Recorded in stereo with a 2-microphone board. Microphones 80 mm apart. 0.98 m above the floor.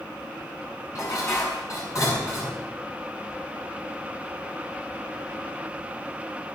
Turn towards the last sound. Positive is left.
turn(degrees=40)  # may be behind; listen again after turning